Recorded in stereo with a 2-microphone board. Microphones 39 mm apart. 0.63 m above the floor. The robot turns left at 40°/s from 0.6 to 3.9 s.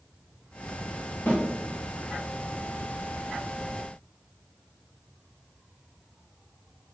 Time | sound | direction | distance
1.3 | a snare drum | 35° left (ahead or behind) | 1.4 m